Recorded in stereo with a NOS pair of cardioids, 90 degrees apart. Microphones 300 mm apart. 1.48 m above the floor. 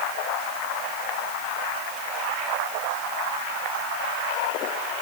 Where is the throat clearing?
I don't hear throat clearing.